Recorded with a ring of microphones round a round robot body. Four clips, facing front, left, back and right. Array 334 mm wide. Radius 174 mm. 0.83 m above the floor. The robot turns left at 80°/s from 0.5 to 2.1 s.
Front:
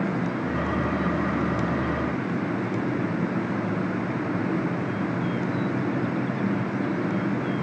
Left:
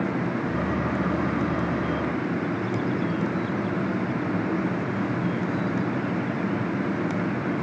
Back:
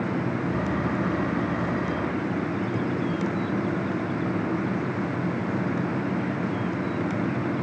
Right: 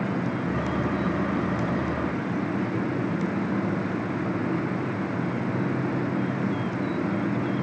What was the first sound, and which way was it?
Only background noise.